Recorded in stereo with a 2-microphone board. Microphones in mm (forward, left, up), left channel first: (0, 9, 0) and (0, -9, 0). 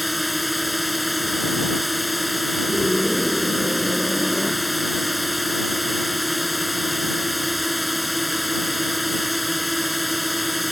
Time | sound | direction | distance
0.0 | a drone | 5° right (ahead or behind) | ?
2.7 | a scream | 50° left (ahead or behind) | ?